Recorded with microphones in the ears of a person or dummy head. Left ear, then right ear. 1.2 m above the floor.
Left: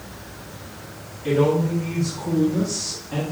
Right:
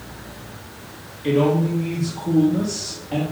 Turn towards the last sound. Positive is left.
turn(degrees=-40)  # may be behind; listen again after turning